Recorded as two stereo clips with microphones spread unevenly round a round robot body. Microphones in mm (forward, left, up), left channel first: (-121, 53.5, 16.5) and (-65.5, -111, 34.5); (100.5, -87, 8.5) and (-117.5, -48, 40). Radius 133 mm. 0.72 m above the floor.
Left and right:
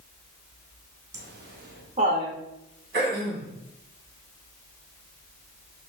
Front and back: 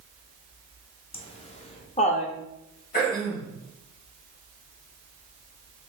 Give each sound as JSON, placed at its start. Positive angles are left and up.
{"t": 1.1, "sound": "laughter", "azimuth_deg": -65, "distance_m": 1.0}
{"t": 2.9, "sound": "throat clearing", "azimuth_deg": -40, "distance_m": 1.8}